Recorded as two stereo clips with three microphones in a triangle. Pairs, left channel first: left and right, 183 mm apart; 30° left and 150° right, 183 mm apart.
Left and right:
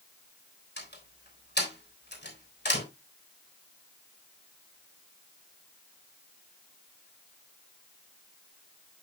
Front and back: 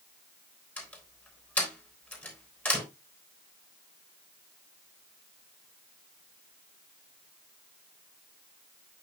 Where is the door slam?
110° left, 3.5 m.